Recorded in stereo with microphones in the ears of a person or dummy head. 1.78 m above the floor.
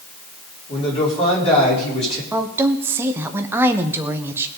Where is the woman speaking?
10° right (ahead or behind), 1.1 m.